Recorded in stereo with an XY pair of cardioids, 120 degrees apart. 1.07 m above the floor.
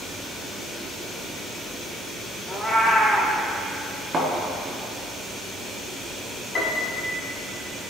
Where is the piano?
40° left, 1.7 m.